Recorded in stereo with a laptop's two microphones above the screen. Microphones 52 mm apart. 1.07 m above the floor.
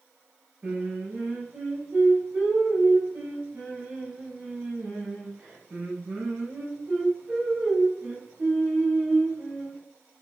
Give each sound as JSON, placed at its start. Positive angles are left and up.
{"t": 0.6, "sound": "singing", "side_deg": -30, "distance_m": 5.0}